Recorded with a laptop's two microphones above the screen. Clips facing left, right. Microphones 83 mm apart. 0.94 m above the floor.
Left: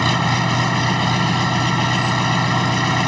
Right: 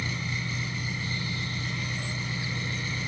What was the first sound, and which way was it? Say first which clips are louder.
An engine running: left 16 dB; 85° left.